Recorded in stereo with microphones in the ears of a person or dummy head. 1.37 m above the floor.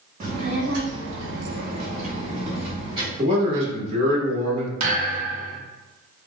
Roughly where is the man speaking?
Right.